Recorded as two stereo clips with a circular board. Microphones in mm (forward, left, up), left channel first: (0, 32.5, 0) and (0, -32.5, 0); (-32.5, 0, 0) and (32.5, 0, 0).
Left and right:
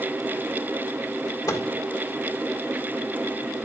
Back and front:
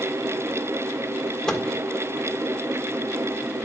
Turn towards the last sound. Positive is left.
turn(degrees=100)